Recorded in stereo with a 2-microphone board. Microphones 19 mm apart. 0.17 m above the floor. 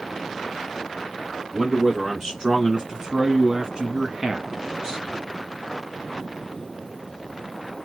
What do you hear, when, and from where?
1.5 s a man speaking: 25° right (ahead or behind), 1.6 m; by 5.2 s 30° right (ahead or behind), 1.5 m